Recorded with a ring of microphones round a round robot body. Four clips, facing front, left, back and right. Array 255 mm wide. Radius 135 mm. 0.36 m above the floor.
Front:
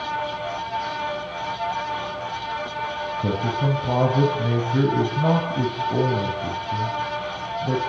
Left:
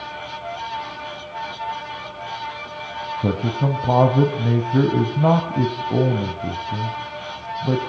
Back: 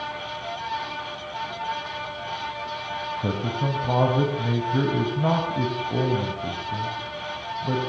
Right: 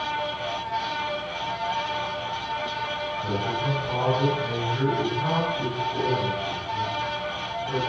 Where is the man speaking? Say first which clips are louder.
Left 7 dB, front 4 dB; 80° left, 3 m.